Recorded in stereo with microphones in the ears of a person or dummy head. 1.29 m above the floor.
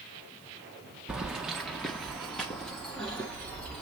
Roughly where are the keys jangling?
Centre.